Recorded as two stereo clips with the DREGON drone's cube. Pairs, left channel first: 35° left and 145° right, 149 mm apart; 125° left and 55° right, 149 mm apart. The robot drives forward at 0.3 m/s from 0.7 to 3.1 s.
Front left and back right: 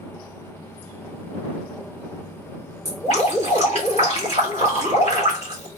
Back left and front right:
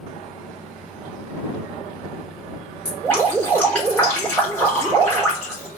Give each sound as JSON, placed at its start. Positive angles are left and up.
{"t": 2.9, "sound": "dripping", "azimuth_deg": -155, "distance_m": 2.5}